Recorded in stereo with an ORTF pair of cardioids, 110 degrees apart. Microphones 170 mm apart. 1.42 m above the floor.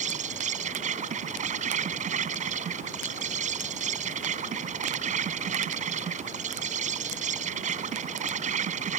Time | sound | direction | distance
0.0 | an insect | 45° right | ?